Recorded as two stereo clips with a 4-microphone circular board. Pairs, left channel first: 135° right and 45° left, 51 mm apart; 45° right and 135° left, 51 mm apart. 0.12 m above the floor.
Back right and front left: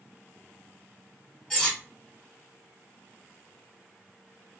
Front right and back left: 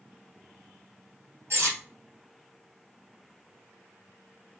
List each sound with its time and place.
1.5 s cutlery clinking: 150° left, 1.6 m